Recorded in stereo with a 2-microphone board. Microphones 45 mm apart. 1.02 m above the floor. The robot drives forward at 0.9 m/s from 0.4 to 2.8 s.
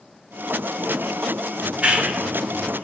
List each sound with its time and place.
1.6 s a clap: 25° right (ahead or behind), 2.5 m; by 2.8 s 45° right (ahead or behind), 1.6 m